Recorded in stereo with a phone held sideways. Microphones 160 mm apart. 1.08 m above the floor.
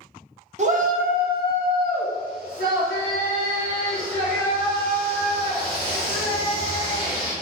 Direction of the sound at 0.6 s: 50° right (ahead or behind).